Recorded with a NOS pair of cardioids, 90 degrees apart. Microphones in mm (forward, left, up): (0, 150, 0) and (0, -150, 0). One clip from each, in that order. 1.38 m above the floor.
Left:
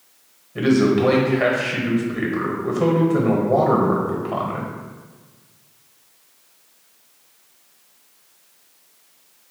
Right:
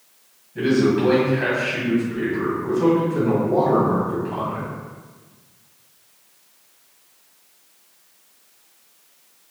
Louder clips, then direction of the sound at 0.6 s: Left 1 dB; 45° left.